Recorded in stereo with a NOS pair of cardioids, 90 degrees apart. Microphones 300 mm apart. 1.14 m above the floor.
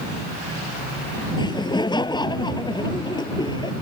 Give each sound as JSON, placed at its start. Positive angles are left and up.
{"t": 1.4, "sound": "laughter", "azimuth_deg": 15}